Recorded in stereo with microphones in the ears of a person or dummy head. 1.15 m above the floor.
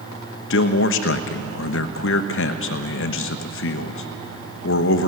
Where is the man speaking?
65° left (ahead or behind), 1.2 m.